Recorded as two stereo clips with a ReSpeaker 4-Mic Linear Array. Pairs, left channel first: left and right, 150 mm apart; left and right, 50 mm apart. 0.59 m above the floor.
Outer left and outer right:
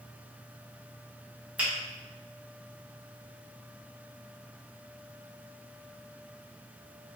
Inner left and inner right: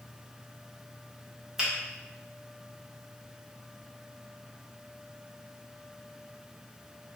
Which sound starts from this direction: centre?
A finger snap, at 1.6 s.